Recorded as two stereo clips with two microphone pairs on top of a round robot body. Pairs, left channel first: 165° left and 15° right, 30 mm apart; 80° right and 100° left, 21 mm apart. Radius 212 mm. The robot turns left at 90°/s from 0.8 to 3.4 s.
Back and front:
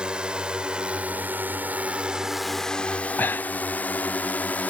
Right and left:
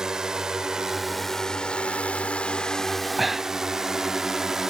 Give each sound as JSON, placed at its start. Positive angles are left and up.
{"t": 0.0, "sound": "a drone", "azimuth_deg": 45}
{"t": 3.2, "sound": "breathing", "azimuth_deg": -170}